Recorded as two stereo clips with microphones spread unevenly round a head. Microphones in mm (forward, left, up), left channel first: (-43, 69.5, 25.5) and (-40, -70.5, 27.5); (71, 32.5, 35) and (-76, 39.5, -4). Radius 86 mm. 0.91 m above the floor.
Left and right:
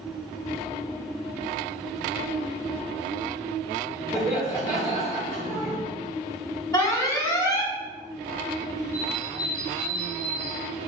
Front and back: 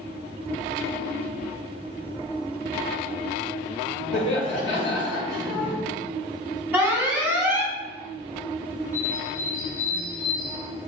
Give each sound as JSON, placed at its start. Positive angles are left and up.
{"t": 4.1, "sound": "laughter", "azimuth_deg": -15, "distance_m": 2.0}
{"t": 6.7, "sound": "an alarm", "azimuth_deg": 135, "distance_m": 1.2}
{"t": 8.9, "sound": "a bird", "azimuth_deg": -15, "distance_m": 1.8}